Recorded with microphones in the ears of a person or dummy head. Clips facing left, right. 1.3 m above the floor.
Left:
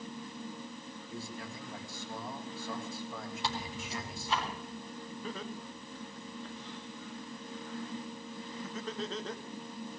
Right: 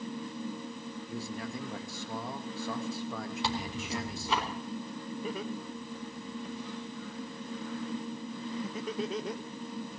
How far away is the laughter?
About 0.6 m.